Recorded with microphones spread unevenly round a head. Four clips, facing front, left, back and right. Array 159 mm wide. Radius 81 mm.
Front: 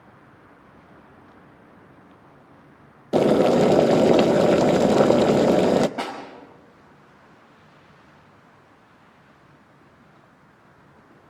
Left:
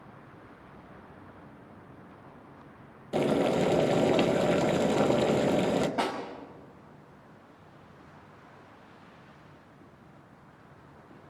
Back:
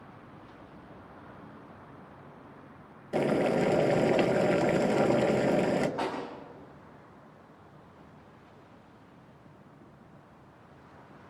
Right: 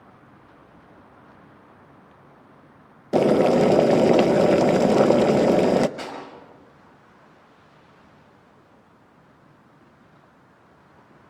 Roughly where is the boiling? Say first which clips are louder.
Right 9 dB, front 10 dB; ahead right.